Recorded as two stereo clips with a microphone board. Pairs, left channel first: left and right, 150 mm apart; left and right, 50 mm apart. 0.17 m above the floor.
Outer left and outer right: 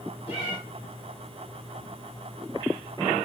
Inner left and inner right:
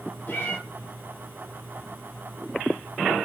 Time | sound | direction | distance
0.3 | a cat meowing | 40° left (ahead or behind) | 1.5 m